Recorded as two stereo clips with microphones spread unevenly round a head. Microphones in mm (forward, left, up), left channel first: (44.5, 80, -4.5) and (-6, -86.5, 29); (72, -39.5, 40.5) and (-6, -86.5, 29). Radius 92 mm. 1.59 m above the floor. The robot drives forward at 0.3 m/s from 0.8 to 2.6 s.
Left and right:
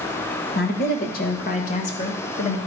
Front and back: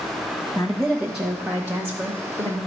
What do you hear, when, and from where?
0.6 s a woman speaking: 120° left, 1.3 m; by 2.6 s 135° left, 1.7 m